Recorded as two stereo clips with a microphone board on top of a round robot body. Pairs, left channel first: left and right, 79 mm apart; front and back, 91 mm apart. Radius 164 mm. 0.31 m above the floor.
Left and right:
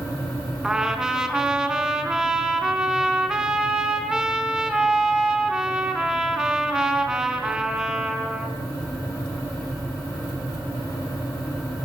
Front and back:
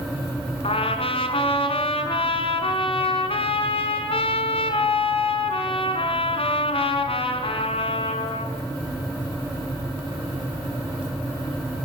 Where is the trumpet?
10° right, 4.5 m.